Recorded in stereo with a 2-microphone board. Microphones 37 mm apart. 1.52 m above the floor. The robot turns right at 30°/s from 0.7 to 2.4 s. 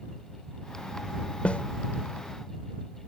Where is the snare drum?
35° left (ahead or behind); by 1.6 s 30° left (ahead or behind).